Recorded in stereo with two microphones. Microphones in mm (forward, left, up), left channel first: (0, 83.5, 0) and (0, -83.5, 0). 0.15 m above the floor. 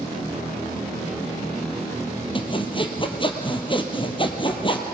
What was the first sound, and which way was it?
Sawing, 30° left (ahead or behind).